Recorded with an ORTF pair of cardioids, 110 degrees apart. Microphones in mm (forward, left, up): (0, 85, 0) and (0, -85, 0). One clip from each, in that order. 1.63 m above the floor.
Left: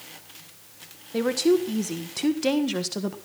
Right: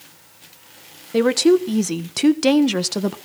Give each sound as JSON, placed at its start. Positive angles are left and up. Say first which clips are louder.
{"t": 1.1, "sound": "a woman speaking", "louder": "right 6 dB", "azimuth_deg": -40, "distance_m": 1.4}